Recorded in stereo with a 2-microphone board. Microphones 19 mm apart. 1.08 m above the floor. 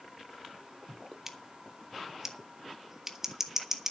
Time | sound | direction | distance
1.3 | scissors | 25° right (ahead or behind) | 1.7 m